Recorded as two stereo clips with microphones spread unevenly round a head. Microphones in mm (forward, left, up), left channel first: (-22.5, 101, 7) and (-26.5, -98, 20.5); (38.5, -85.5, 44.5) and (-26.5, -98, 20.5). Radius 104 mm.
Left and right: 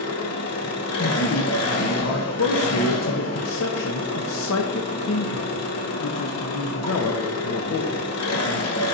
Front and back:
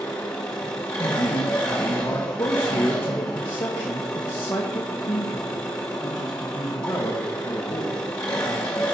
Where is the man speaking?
60° left, 0.8 m.